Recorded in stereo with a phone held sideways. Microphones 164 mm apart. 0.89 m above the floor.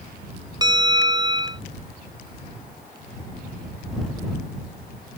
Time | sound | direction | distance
0.6 | a bell | 25° right (ahead or behind) | ?